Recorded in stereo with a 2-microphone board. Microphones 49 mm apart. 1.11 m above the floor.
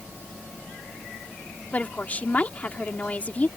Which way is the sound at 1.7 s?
30° left (ahead or behind).